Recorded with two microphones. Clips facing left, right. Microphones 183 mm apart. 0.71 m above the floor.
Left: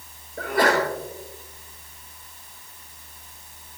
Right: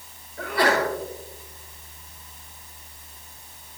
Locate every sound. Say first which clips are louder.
0.4 s a sneeze: left 1 dB; 50° left (ahead or behind), 5 m